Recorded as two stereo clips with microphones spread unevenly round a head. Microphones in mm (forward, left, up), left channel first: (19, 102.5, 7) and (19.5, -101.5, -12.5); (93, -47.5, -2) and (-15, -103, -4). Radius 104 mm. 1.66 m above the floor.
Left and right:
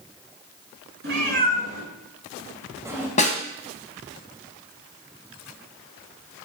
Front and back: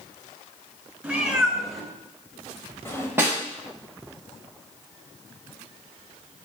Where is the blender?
No blender in this recording.